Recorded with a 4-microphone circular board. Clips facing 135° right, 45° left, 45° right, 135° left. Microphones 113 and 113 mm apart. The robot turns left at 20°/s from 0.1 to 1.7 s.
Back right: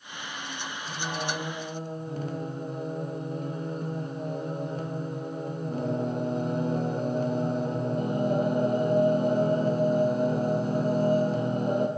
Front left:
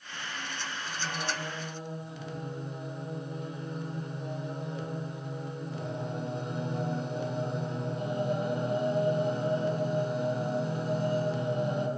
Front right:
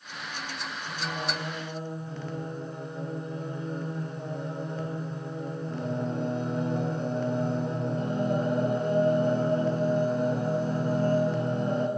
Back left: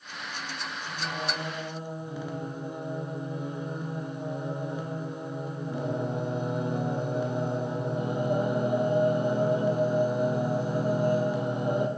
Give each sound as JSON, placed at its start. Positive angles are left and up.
{"t": 0.9, "sound": "singing", "azimuth_deg": -135, "distance_m": 0.6}